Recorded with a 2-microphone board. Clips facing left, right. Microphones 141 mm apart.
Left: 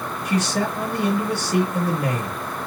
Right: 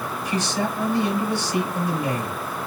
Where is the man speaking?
70° left (ahead or behind), 3 m.